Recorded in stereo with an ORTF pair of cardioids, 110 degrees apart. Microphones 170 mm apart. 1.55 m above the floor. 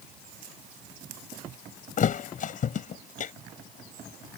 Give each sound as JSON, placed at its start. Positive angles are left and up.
{"t": 2.0, "sound": "a thud", "azimuth_deg": 50}